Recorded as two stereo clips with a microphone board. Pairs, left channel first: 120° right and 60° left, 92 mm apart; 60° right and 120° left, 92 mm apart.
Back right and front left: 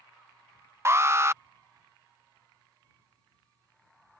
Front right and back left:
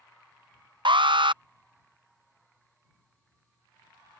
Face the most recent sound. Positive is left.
turn(degrees=115)